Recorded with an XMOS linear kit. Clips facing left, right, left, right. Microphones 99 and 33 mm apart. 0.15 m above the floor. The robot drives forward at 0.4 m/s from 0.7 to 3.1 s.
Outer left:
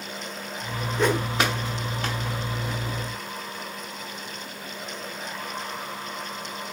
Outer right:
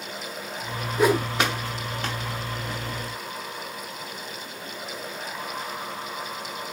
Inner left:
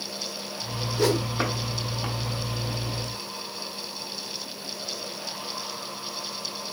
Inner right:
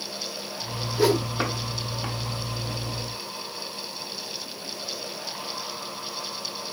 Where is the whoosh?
10° right (ahead or behind), 0.5 m.